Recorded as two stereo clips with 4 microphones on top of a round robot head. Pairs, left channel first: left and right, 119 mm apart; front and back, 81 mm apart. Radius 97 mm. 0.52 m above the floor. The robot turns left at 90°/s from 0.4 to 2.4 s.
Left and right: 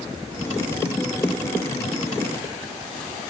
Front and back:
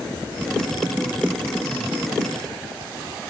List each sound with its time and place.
Only background noise.